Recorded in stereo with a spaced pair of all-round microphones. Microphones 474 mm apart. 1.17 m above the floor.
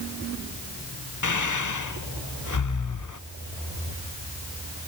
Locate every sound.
1.2 s breathing: 40° left (ahead or behind), 0.7 m